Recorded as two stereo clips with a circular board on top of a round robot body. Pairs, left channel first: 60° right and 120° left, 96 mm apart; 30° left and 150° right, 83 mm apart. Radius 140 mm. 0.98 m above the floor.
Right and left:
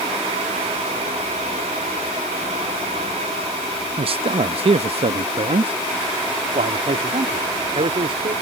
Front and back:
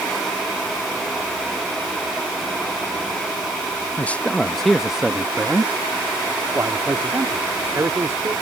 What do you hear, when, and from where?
4.0 s a man speaking: 100° left; by 8.3 s 150° left